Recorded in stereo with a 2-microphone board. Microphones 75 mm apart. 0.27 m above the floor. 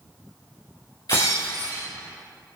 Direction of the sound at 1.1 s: 60° left (ahead or behind).